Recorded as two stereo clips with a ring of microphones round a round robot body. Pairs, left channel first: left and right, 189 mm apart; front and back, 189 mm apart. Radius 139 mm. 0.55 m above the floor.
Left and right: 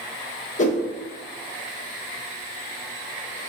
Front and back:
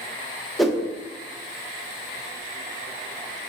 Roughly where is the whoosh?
Left.